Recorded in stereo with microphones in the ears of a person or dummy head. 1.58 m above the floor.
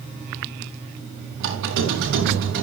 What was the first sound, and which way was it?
A squeak, 75° right (ahead or behind).